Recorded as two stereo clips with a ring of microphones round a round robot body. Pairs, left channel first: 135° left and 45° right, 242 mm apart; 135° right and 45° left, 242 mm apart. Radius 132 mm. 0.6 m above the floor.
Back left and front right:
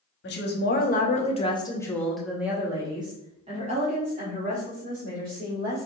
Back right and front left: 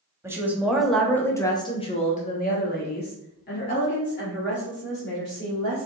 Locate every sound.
0.2 s a woman speaking: 120° left, 1.2 m; by 5.9 s 95° right, 2.5 m